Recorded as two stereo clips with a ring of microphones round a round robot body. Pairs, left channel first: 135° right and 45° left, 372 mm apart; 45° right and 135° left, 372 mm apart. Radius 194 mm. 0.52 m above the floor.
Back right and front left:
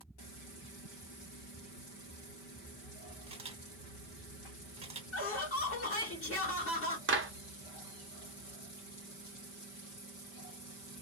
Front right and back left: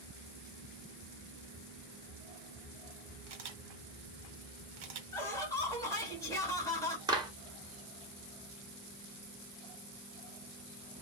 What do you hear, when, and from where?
3.3 s a camera shutter: 120° left, 1.4 m
5.1 s laughter: 120° right, 1.5 m
7.1 s a clap: 65° left, 0.9 m